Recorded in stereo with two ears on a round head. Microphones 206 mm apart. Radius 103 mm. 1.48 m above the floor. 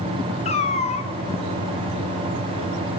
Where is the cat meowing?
30° left (ahead or behind), 0.7 m.